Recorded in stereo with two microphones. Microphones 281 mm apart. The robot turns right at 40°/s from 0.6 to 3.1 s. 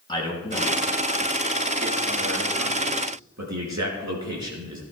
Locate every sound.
0.1 s a man speaking: 160° left, 4 m; by 4.8 s 100° right, 4 m